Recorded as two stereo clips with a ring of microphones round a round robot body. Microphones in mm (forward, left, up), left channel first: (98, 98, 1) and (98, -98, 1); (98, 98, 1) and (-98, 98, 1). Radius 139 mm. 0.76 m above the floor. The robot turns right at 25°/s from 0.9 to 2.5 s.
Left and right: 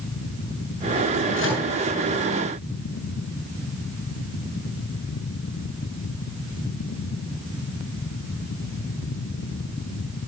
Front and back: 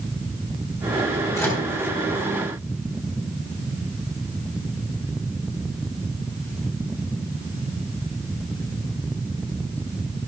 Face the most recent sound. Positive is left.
turn(degrees=105)